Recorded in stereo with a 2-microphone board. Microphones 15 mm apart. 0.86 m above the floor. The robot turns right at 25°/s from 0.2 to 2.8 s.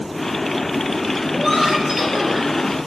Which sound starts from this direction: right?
Laughter, at 1.3 s.